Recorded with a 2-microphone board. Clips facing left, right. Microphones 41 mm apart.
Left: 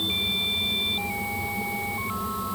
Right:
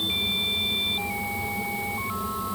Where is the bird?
No bird in this recording.